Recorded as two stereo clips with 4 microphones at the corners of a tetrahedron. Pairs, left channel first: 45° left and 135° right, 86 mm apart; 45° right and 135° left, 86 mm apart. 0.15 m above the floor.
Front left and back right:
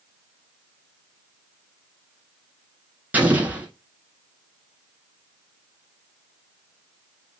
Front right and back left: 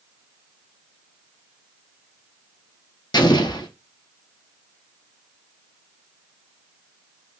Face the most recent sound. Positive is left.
turn(degrees=-65)